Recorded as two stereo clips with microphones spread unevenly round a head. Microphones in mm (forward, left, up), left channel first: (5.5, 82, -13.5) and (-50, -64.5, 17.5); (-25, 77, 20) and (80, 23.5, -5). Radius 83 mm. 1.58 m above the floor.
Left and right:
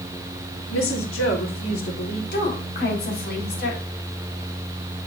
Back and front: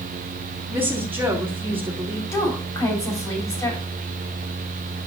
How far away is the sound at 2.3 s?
About 5.5 m.